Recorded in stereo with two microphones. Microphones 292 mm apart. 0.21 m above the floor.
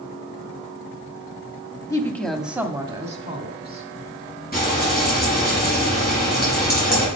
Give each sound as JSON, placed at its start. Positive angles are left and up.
{"t": 1.9, "sound": "a woman speaking", "side_deg": 10, "distance_m": 1.0}
{"t": 4.5, "sound": "frying", "side_deg": 30, "distance_m": 4.5}